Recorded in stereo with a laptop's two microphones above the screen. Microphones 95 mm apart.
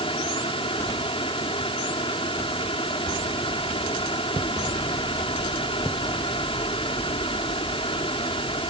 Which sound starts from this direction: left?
A fan, at 0.0 s.